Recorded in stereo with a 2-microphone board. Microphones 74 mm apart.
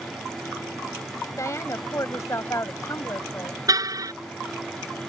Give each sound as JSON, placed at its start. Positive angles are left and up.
{"t": 1.4, "sound": "a woman speaking", "side_deg": 45}
{"t": 3.7, "sound": "a car horn", "side_deg": -55}